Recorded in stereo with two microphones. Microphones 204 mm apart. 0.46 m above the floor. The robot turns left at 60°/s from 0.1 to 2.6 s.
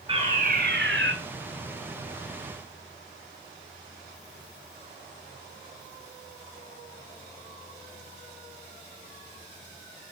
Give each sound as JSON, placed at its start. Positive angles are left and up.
{"t": 0.1, "sound": "a fire alarm", "azimuth_deg": -25, "distance_m": 5.0}